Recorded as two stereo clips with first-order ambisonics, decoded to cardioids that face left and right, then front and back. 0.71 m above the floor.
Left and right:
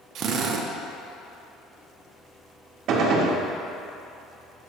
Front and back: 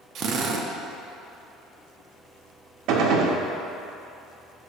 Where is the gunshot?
140° right, 0.7 m.